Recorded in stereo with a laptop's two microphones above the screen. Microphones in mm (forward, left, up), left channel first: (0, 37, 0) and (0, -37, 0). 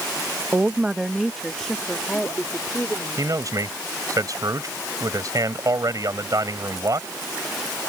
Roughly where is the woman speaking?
Right.